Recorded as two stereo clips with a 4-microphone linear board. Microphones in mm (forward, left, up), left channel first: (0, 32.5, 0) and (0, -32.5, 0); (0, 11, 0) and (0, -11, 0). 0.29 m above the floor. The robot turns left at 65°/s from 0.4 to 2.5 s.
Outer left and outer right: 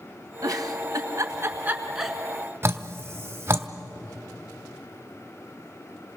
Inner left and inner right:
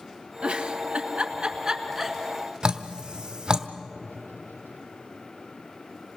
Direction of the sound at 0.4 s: 65° right (ahead or behind).